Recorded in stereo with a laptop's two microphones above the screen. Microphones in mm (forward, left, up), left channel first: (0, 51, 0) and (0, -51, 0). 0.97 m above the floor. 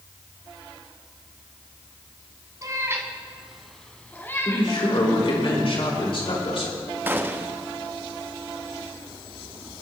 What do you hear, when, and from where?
2.6 s a cat meowing: 35° right (ahead or behind), 1.8 m; by 4.7 s 30° left (ahead or behind), 2 m
4.5 s a man speaking: 65° left (ahead or behind), 4.5 m
7.1 s a gunshot: 20° right (ahead or behind), 0.5 m